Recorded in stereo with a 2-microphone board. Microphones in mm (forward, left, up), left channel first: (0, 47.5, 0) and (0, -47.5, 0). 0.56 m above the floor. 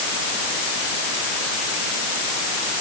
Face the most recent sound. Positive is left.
No sound to turn to.